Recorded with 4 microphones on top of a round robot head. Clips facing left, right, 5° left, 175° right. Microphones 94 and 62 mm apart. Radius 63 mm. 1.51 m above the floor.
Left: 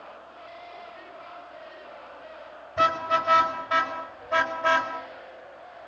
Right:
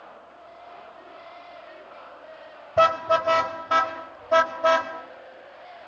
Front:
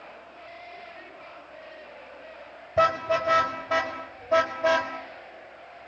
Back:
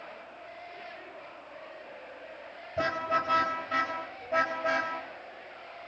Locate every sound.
2.8 s a car horn: 45° right, 4.5 m; by 4.9 s 20° right, 3.5 m